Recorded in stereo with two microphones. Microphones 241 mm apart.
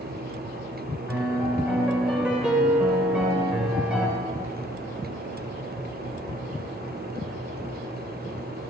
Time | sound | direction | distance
1.1 | a piano | 5° right (ahead or behind) | 3.5 m